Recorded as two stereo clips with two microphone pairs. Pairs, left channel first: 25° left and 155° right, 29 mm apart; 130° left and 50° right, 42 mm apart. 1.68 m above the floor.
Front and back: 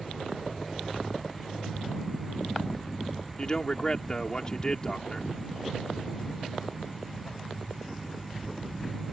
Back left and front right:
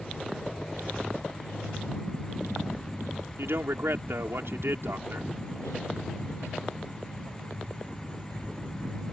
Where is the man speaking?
40° right.